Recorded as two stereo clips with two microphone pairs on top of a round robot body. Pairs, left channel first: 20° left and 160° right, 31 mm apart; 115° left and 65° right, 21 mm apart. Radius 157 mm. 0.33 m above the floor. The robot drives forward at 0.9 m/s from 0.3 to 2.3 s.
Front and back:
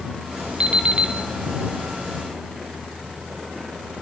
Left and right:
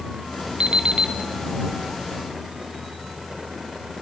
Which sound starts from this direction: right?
An alarm clock, at 0.6 s.